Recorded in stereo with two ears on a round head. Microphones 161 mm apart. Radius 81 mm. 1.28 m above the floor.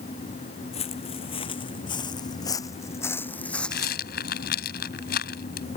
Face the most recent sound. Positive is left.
turn(degrees=60)  # may be behind; listen again after turning